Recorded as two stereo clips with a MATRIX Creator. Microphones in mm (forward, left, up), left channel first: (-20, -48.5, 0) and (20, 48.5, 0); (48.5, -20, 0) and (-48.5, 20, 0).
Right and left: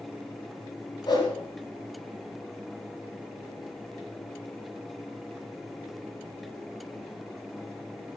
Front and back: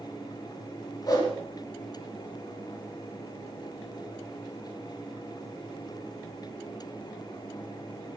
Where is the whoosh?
70° right, 4 m.